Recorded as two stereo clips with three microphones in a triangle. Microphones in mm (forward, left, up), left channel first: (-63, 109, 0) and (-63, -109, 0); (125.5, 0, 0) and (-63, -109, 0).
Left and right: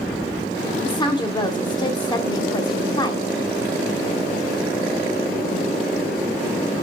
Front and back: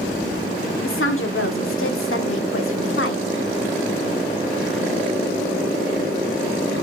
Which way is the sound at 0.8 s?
20° left.